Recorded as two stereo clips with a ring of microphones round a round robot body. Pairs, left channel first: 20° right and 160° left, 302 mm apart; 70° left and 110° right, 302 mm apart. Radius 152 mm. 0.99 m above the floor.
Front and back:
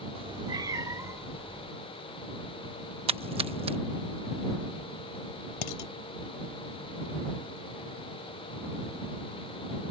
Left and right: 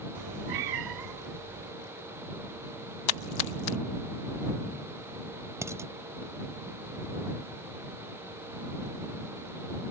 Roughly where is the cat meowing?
Behind right.